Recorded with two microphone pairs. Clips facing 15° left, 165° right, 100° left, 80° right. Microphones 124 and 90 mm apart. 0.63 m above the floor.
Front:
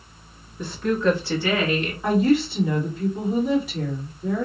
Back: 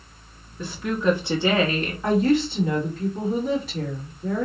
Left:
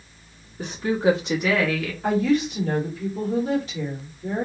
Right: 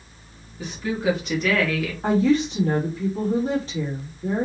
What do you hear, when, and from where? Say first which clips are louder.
0.6 s a woman speaking: front 2 dB, left 4 dB; 100° left, 0.9 m; by 1.9 s 165° right, 0.9 m
2.0 s a woman speaking: front 1 dB, right 2 dB; 65° right, 1.3 m